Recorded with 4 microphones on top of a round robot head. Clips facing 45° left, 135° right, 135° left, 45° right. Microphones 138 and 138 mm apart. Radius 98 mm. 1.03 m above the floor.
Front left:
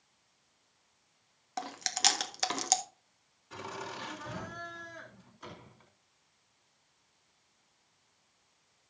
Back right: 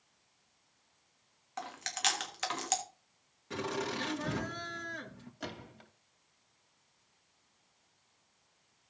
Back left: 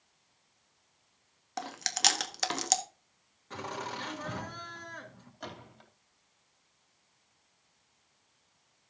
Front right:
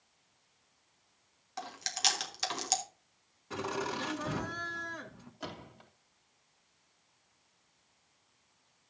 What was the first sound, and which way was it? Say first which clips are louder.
Chewing: front left 3 dB, back left 4 dB; 95° left.